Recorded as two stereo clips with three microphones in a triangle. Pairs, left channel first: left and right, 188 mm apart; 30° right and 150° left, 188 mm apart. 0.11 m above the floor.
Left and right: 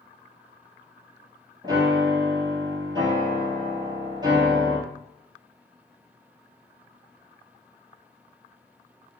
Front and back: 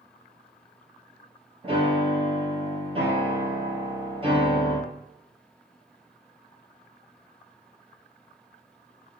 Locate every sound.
1.6 s a piano: 155° right, 1.7 m